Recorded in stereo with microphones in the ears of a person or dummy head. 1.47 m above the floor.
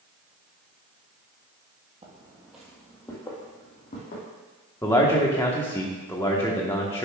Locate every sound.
2.0 s footsteps: 30° right (ahead or behind), 1.8 m; by 4.2 s 45° left (ahead or behind), 3 m
4.8 s a man speaking: 15° left (ahead or behind), 1.0 m